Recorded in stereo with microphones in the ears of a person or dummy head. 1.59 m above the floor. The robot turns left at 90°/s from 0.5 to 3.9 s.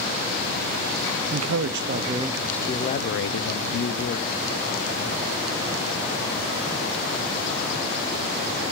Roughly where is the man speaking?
Right.